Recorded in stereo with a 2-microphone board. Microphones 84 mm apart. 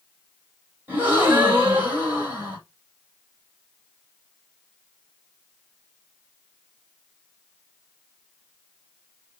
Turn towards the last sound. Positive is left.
turn(degrees=-30)  # may be behind; listen again after turning